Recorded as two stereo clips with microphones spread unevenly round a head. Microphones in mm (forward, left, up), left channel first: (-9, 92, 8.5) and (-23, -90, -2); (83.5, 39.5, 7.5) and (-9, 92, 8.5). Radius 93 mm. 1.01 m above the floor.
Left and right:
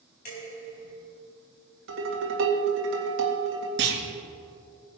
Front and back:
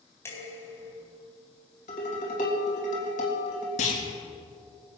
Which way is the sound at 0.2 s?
40° left.